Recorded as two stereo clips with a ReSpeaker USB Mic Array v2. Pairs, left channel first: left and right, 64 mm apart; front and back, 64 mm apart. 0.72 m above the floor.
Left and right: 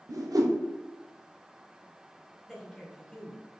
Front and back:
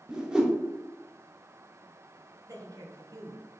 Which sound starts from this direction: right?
A whoosh, at 0.1 s.